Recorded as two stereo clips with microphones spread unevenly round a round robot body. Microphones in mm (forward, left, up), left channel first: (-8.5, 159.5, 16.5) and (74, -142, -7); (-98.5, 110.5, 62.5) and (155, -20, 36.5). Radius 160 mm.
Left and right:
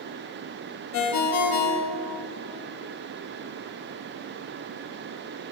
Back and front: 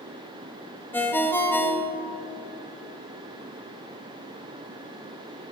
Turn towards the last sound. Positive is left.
turn(degrees=65)